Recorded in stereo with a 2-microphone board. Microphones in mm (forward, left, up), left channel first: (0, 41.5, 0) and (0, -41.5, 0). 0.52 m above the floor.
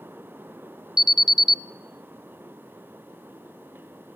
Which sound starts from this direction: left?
An alarm, at 1.0 s.